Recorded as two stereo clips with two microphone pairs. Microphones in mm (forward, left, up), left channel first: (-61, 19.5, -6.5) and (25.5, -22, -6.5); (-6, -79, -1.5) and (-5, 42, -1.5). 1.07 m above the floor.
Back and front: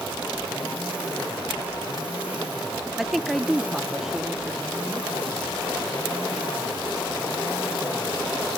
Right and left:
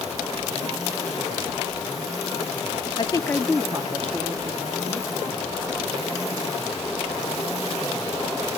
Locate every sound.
3.0 s a woman speaking: 120° right, 0.7 m; by 5.1 s 60° left, 1.8 m